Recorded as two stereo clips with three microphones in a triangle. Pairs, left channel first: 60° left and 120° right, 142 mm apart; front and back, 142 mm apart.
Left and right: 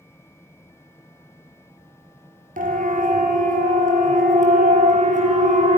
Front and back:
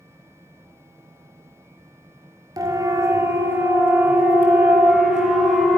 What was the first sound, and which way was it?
A siren, 120° right.